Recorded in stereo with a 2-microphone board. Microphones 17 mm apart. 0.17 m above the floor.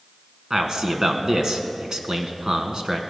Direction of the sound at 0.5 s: 40° right (ahead or behind).